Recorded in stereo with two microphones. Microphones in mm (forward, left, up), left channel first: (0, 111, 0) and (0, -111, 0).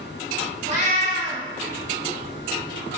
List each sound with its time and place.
0.7 s a cat meowing: 35° right (ahead or behind), 1.1 m